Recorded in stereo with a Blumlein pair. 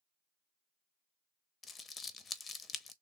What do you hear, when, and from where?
1.6 s crumpling: 20° left, 0.6 m